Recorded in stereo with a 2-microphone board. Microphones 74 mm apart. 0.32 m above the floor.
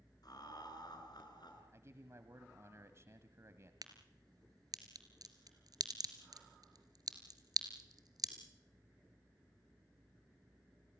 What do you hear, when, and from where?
0.2 s laughter: 65° left (ahead or behind), 5 m; by 1.6 s 75° left (ahead or behind), 5.5 m
1.7 s a man speaking: 40° right (ahead or behind), 1.5 m
3.8 s a crack: 60° right (ahead or behind), 2.5 m